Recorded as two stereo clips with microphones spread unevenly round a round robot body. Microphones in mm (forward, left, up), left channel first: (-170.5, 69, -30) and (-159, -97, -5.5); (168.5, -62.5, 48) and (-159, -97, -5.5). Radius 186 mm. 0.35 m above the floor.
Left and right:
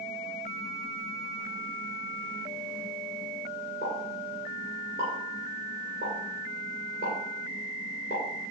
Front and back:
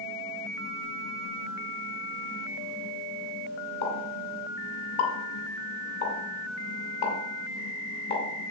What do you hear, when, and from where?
3.8 s a pop: 35° left, 2.5 m